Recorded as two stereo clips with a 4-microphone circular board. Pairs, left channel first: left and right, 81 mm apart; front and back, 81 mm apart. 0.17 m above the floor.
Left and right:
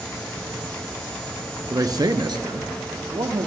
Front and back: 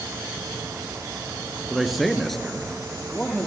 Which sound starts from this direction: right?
A man speaking, at 1.7 s.